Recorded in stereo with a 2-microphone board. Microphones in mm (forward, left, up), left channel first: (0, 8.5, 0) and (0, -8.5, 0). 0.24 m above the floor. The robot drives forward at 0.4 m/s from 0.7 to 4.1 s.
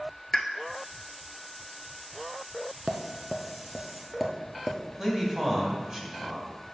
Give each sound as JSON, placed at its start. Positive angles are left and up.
{"t": 0.3, "sound": "a pop", "side_deg": 20, "distance_m": 0.6}
{"t": 2.9, "sound": "tapping", "side_deg": -25, "distance_m": 0.6}
{"t": 5.0, "sound": "a man speaking", "side_deg": -30, "distance_m": 1.8}